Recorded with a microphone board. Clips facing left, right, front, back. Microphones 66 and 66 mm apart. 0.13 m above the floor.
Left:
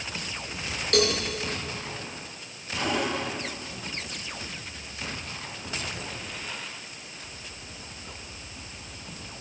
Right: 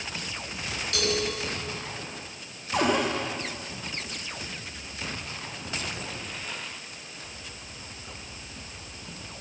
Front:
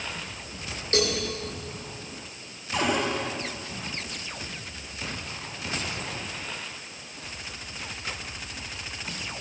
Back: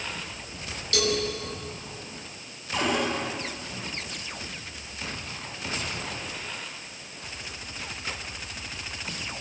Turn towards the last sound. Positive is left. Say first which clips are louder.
# right 4 dB, even
turn(degrees=-85)